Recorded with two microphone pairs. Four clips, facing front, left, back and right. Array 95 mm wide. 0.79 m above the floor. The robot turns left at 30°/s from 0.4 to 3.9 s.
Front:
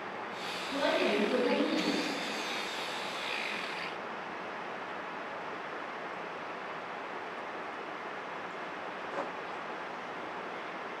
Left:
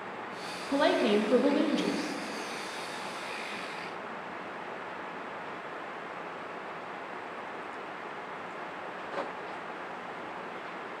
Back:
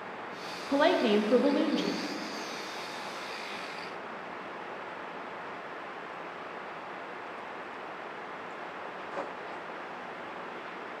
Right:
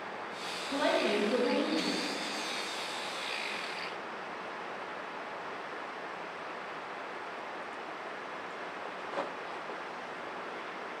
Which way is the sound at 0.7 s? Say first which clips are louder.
Left 4 dB, back 5 dB; 160° left.